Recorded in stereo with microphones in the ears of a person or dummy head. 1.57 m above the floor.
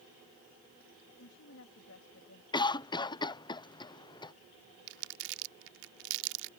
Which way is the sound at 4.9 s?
70° right (ahead or behind).